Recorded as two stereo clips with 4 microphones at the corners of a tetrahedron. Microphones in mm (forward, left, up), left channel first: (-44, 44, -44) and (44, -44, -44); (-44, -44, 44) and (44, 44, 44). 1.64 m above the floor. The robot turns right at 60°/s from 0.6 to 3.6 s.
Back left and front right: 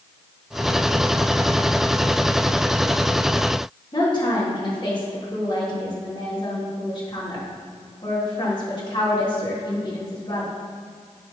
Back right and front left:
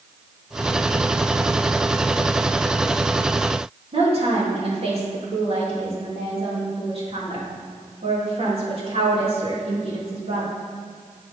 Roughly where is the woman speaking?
Left.